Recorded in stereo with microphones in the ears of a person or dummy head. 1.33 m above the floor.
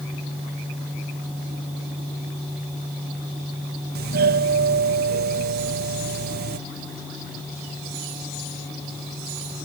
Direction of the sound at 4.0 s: 55° right (ahead or behind).